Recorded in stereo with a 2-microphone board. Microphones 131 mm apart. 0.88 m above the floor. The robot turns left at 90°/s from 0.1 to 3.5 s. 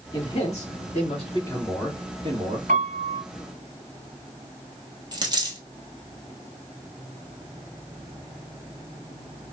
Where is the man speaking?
150° left, 1.6 m; by 2.6 s 75° right, 1.6 m.